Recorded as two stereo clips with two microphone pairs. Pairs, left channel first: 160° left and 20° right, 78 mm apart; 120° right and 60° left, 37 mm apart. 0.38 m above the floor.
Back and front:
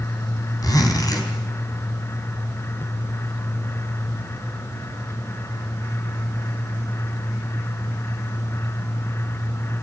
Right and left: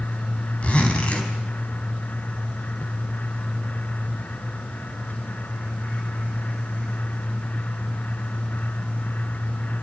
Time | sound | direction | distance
0.6 | a zipper | 170° right | 3.5 m